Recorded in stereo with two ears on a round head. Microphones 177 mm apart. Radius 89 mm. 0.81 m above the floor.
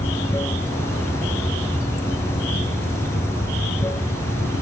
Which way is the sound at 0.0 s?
15° left (ahead or behind).